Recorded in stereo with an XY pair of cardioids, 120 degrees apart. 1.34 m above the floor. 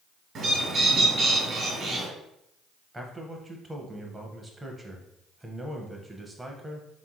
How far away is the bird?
About 1.4 m.